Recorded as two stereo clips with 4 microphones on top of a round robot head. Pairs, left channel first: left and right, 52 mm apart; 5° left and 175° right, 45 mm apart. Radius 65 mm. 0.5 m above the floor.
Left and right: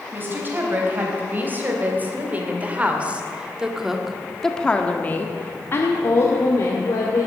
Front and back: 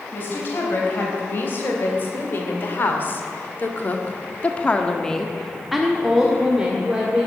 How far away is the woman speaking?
About 4.5 m.